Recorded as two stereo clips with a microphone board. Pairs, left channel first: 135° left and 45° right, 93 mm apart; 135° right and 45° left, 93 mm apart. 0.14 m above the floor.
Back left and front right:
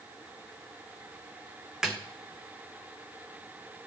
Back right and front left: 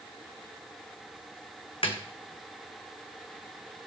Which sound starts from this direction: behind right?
A snare drum, at 1.8 s.